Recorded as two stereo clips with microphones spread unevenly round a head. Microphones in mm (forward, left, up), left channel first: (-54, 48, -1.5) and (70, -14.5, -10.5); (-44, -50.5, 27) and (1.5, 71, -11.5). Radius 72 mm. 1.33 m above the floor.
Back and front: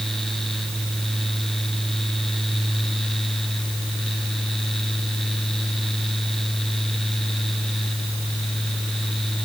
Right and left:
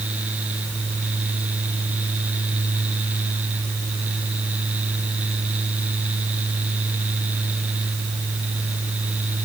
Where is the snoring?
I don't hear snoring.